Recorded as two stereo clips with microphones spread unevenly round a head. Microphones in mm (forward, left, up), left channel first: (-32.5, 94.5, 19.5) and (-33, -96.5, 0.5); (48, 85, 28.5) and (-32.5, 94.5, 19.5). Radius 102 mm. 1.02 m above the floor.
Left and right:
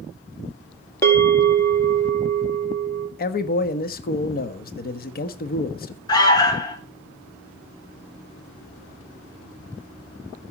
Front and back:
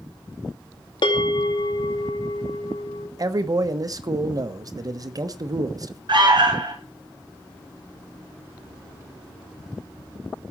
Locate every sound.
1.0 s a bell: 10° left, 2.5 m
3.2 s a man speaking: 130° left, 1.2 m
6.1 s an alarm: 160° left, 5.5 m